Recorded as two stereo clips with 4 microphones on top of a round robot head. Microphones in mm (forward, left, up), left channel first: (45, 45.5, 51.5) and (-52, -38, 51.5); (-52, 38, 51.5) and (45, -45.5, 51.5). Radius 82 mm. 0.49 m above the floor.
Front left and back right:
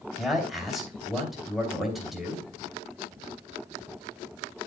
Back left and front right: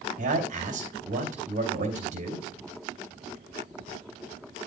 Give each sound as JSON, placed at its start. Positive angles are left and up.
{"t": 0.2, "sound": "a man speaking", "azimuth_deg": -50, "distance_m": 2.5}